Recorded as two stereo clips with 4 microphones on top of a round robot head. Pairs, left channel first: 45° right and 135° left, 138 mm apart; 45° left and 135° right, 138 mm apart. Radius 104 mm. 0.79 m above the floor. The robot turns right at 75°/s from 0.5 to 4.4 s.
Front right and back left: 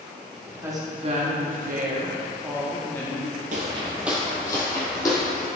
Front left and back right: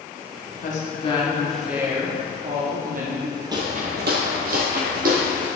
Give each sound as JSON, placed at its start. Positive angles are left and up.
{"t": 0.6, "sound": "a woman speaking", "azimuth_deg": 65, "distance_m": 1.5}
{"t": 3.5, "sound": "footsteps", "azimuth_deg": 165, "distance_m": 1.0}